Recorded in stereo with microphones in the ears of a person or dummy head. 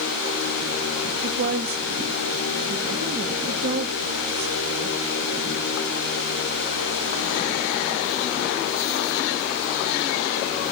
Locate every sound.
1.2 s a woman speaking: 60° right (ahead or behind), 2 m